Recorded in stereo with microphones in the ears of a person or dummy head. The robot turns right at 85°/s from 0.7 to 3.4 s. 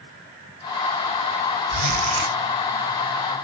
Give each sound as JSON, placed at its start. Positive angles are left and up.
{"t": 1.7, "sound": "a zipper", "azimuth_deg": -115, "distance_m": 3.5}